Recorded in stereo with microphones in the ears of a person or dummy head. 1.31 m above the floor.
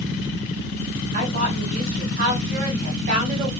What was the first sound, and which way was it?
A woman speaking, 40° right (ahead or behind).